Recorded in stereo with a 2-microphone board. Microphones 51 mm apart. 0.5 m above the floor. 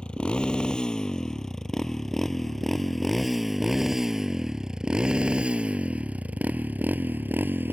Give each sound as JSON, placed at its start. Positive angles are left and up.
{"t": 0.0, "sound": "a motorcycle", "side_deg": 20}